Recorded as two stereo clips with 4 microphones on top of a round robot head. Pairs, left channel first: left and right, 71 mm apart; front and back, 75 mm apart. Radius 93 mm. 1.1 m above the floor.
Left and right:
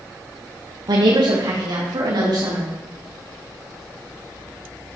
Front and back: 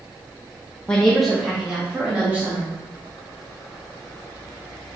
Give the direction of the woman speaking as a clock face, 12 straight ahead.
3 o'clock.